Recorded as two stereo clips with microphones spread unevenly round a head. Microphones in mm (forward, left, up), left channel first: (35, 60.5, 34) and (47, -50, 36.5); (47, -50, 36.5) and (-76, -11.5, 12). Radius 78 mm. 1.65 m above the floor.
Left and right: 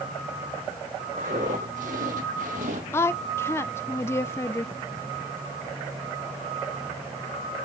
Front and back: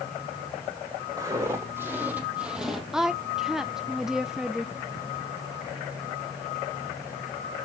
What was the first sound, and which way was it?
Footsteps, 130° right.